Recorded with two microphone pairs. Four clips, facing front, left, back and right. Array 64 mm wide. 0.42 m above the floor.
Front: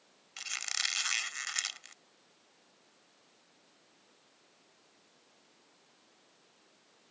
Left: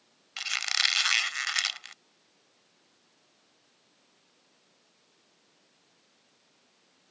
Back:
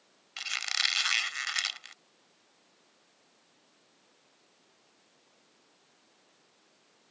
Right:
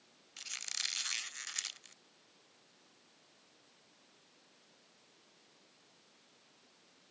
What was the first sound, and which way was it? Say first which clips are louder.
A squeak: left 16 dB, back 5 dB; 115° left.